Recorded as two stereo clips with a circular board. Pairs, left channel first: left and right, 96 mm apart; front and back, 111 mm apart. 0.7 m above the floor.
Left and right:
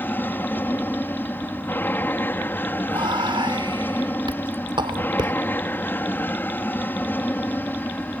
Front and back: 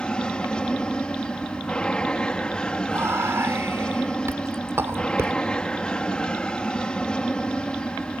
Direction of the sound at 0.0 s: 70° left.